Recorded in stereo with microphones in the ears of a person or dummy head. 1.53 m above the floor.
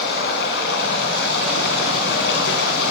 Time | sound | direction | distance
0.0 | running water | 70° left (ahead or behind) | 3.5 m